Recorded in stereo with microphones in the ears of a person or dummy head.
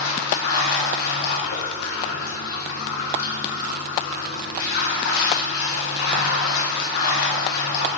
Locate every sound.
0.0 s running water: 70° left (ahead or behind), 0.8 m